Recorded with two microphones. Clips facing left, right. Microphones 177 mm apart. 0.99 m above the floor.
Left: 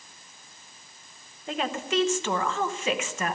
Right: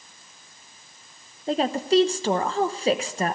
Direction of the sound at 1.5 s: 35° right (ahead or behind).